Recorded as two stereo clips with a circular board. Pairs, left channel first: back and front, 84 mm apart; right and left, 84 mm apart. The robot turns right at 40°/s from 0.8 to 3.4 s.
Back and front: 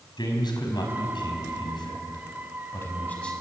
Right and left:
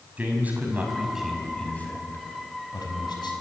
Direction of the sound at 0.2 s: 160° left.